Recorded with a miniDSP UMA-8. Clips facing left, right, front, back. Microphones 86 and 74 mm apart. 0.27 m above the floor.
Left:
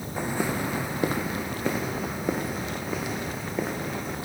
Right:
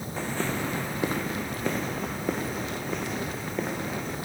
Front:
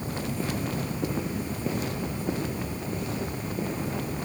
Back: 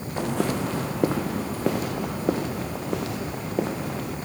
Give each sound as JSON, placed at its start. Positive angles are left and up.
{"t": 0.2, "sound": "footsteps", "azimuth_deg": 165, "distance_m": 1.2}